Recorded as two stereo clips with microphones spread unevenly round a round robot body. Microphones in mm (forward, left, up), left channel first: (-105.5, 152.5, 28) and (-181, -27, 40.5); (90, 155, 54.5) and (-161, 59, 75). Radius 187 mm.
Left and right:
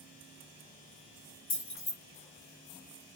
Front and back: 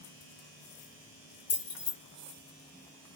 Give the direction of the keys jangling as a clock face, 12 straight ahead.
11 o'clock.